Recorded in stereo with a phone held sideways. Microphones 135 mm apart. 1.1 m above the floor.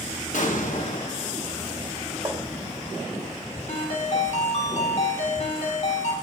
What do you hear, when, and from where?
0.3 s an explosion: 70° left (ahead or behind), 0.9 m
2.2 s tapping: 25° right (ahead or behind), 1.0 m
3.7 s a ringtone: 55° left (ahead or behind), 1.6 m